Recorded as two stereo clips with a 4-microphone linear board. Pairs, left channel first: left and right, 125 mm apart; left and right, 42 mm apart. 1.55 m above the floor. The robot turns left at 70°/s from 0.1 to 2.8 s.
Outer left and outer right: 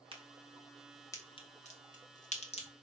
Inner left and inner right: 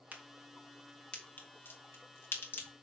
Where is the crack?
45° right (ahead or behind), 2 m; by 2.7 s 45° left (ahead or behind), 2 m.